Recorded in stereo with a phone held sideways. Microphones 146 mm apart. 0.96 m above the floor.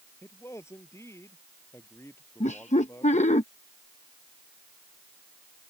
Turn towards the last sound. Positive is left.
turn(degrees=55)  # may be behind; listen again after turning